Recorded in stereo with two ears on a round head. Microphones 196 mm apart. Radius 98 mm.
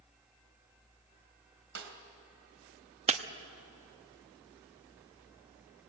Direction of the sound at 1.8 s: 55° right (ahead or behind).